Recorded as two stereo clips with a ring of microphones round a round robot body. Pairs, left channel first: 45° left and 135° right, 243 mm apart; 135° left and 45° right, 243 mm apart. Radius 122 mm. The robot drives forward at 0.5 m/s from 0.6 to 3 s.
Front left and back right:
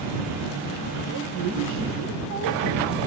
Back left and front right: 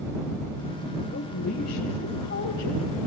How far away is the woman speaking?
About 2.5 m.